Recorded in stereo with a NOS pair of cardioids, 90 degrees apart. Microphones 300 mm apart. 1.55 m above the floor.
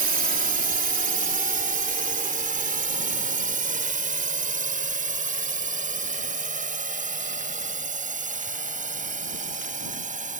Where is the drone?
30° right; by 10.4 s 25° right.